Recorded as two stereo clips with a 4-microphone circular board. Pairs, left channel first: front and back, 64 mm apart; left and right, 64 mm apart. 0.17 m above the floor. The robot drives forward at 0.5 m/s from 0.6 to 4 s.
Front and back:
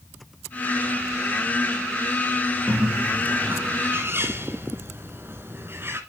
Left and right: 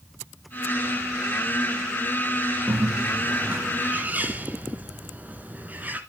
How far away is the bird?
About 1.5 m.